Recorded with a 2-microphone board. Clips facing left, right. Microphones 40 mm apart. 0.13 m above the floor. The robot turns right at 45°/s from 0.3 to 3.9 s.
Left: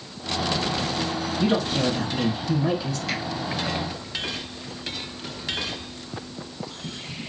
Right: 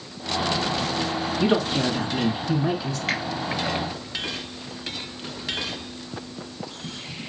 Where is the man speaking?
80° right, 1.2 m; by 3.0 s 10° right, 1.2 m.